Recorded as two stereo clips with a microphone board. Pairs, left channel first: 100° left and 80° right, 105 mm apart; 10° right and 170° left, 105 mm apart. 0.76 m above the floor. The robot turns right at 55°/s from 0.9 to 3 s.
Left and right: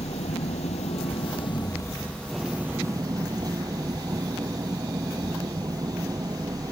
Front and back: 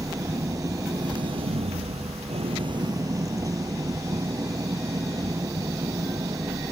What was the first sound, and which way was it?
An engine running, 110° left.